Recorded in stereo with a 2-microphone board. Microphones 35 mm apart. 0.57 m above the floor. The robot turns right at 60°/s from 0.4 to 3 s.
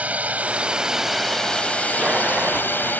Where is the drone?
45° right; by 3.0 s 110° left.